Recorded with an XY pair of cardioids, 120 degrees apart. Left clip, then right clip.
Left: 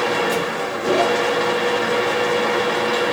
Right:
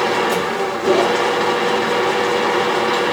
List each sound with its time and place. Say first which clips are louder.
0.0 s a machine running: right 2 dB; 15° right, 1.0 m